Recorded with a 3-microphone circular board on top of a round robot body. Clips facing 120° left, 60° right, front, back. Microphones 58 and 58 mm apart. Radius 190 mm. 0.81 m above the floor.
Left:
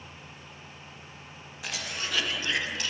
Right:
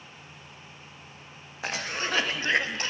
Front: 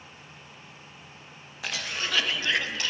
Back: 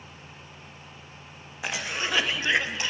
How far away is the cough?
About 1.3 m.